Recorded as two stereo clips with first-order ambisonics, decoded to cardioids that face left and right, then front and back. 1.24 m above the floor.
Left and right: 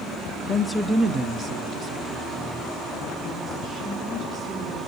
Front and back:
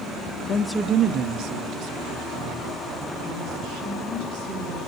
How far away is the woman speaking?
About 0.6 m.